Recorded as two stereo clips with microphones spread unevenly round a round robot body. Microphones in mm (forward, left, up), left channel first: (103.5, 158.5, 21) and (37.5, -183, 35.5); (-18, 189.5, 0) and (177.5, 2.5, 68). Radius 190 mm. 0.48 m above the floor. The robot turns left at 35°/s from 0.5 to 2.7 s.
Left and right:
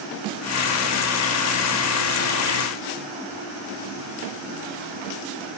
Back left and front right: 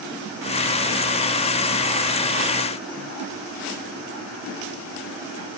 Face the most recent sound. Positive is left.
No sound to turn to.